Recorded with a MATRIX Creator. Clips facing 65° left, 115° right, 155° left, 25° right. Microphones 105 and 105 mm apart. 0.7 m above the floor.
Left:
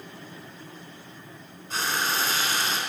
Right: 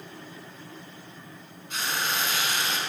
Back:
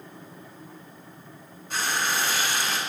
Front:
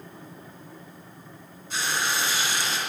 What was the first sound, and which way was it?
Frying, 120° left.